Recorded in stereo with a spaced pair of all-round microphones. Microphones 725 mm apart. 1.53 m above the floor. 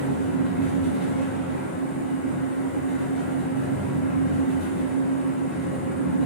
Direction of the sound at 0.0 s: 40° left (ahead or behind).